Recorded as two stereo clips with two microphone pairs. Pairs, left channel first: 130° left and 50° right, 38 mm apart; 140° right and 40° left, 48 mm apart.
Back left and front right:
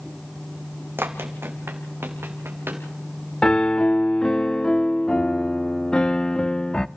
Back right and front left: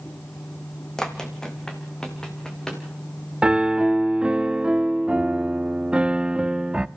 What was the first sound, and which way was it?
Running footsteps, 60° right.